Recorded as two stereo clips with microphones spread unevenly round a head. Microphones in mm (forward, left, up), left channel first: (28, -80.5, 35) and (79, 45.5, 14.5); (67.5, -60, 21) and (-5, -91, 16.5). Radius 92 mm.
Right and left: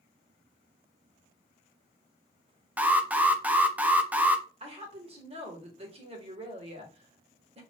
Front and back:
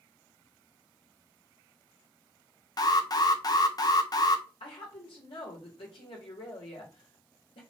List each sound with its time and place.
2.8 s an alarm: 5° right, 0.7 m
4.6 s a woman speaking: 30° left, 1.9 m